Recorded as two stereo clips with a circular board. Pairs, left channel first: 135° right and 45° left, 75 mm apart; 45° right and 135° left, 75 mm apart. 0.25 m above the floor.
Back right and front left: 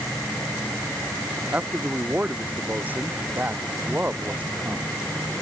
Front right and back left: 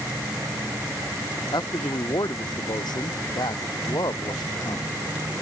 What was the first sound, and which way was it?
A man speaking, 25° right.